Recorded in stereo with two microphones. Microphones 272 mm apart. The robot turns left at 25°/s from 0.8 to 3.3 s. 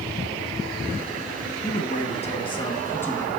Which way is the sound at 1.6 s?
45° left.